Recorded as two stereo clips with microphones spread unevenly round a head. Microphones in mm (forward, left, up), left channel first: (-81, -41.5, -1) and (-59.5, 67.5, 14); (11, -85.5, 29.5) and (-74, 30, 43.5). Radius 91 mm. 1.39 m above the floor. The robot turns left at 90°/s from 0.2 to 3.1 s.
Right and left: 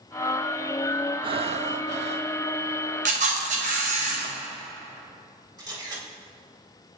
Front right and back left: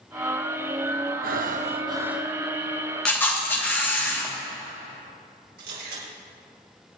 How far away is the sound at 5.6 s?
About 4.5 m.